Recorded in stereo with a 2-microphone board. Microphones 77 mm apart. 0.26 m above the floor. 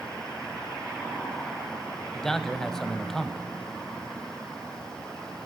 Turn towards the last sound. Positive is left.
turn(degrees=10)  # may be behind; listen again after turning